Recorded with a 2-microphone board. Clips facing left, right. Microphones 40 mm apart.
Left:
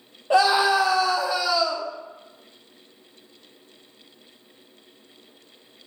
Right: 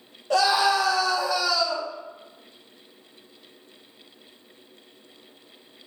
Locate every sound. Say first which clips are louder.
0.3 s a scream: left 2 dB; 25° left (ahead or behind), 0.7 m